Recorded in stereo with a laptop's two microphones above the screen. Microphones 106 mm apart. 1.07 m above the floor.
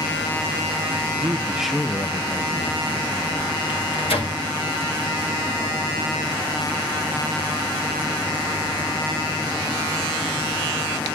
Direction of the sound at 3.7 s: 80° left.